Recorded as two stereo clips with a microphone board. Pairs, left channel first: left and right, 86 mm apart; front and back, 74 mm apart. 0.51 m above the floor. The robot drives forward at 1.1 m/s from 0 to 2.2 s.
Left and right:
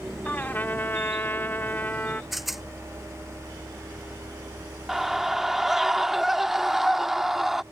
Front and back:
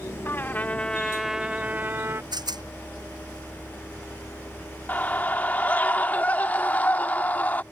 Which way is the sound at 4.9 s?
10° right.